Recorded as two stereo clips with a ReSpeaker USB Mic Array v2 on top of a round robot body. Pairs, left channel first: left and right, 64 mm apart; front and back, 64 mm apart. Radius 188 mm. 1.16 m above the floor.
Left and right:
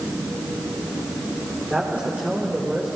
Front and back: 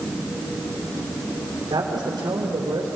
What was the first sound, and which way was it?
A man speaking, 160° right.